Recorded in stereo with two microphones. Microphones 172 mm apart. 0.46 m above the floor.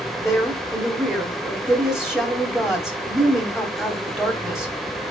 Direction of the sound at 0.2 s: Centre (ahead or behind).